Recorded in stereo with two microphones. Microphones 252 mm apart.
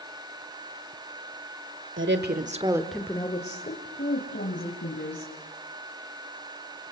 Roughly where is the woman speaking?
Right.